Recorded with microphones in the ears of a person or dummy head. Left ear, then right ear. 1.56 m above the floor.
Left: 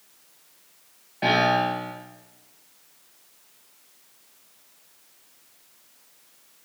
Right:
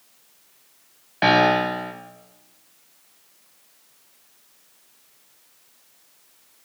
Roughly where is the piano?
Right.